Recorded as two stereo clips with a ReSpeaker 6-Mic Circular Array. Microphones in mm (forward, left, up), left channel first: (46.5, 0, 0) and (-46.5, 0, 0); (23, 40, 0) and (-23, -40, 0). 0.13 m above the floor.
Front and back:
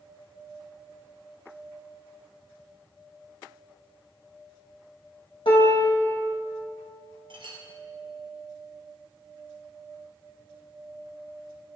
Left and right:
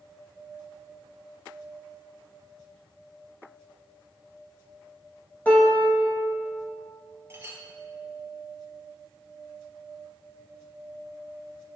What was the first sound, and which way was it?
A piano, 15° right.